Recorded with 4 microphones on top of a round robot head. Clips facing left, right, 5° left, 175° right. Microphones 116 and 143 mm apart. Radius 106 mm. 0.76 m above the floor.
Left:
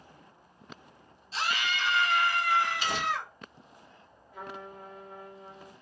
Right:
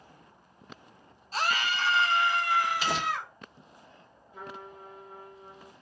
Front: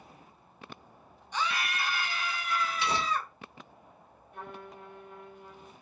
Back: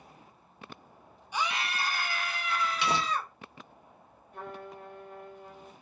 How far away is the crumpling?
About 0.6 m.